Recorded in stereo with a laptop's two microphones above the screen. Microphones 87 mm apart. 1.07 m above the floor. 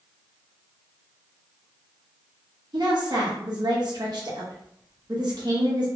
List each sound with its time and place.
2.7 s a woman speaking: 55° right (ahead or behind), 0.9 m